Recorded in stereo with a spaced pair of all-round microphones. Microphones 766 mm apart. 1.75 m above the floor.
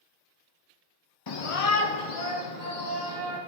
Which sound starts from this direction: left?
A shout, at 1.3 s.